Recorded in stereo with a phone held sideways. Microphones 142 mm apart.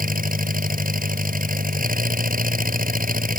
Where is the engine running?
80° right.